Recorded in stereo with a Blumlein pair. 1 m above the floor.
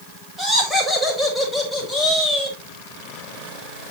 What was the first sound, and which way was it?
Laughter, straight ahead.